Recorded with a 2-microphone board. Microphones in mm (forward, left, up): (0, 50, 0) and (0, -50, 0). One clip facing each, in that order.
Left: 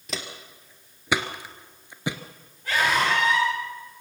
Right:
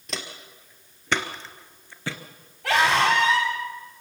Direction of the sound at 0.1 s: Centre (ahead or behind).